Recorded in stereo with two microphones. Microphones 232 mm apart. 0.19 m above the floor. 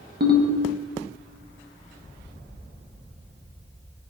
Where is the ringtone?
45° right (ahead or behind), 0.5 m.